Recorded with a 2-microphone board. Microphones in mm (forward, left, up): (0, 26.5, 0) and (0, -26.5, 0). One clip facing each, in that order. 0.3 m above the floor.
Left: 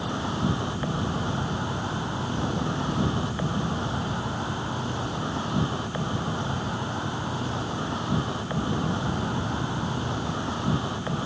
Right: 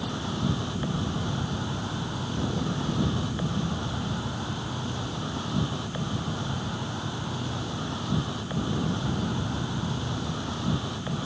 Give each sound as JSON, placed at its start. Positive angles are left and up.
{"t": 0.0, "sound": "an insect", "side_deg": 20}